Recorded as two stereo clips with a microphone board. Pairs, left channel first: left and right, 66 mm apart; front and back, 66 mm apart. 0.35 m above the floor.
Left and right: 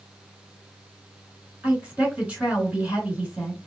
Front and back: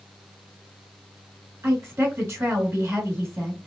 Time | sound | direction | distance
1.6 | a woman speaking | 155° right | 2.5 m